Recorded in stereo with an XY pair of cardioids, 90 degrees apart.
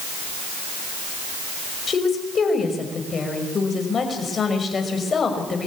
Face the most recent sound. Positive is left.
turn(degrees=45)